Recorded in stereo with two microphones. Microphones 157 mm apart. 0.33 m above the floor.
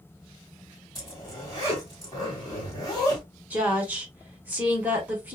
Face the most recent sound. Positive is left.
turn(degrees=-10)  # may be behind; listen again after turning